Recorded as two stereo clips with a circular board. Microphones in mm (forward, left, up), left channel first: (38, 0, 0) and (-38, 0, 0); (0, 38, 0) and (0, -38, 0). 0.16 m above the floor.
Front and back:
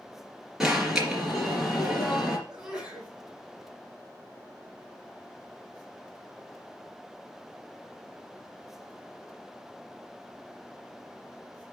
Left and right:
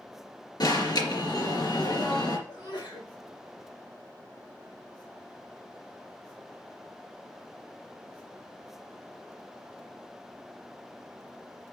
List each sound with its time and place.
0.6 s an alarm: 100° left, 3 m
2.5 s a sneeze: 100° left, 4.5 m